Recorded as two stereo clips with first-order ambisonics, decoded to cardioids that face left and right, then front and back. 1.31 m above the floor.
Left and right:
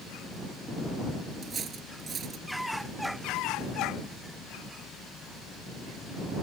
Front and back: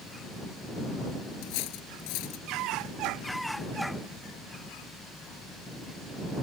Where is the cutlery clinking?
20° right.